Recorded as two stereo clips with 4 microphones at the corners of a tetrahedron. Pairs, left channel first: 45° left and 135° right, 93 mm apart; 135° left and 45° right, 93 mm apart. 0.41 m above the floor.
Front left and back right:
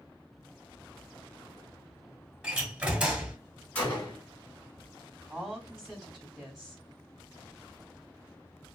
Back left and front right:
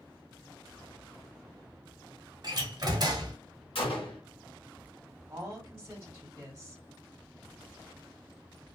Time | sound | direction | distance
2.4 | a door slam | 60° right | 1.0 m
3.8 | a gunshot | 120° left | 1.9 m
5.3 | a woman speaking | 60° right | 1.4 m